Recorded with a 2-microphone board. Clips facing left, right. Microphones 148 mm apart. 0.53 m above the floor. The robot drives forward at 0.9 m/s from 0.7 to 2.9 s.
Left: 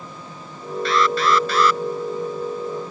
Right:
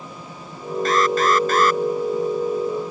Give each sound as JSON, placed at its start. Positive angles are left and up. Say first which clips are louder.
{"t": 0.8, "sound": "an alarm", "louder": "right 1 dB", "side_deg": -45}